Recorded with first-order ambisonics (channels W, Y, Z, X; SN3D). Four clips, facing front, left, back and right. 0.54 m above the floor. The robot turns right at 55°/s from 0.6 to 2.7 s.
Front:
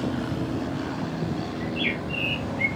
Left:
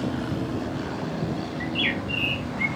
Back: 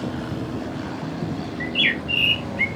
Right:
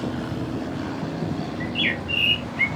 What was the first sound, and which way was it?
A bird, 175° left.